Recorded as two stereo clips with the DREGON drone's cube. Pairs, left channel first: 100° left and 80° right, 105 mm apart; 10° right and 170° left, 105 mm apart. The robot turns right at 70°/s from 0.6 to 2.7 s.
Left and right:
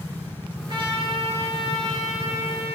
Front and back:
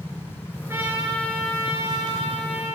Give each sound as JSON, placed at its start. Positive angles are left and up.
{"t": 0.7, "sound": "a trumpet", "azimuth_deg": -125, "distance_m": 5.5}